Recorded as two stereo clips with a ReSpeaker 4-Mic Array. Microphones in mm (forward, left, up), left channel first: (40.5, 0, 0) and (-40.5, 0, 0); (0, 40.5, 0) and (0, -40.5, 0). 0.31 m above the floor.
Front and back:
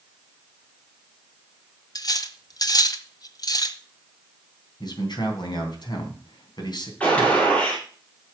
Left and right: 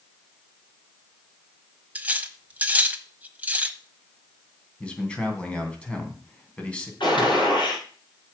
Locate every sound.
1.9 s cutlery clinking: 20° right, 1.0 m
4.8 s a man speaking: 15° left, 3 m
7.0 s a gunshot: 75° left, 6.5 m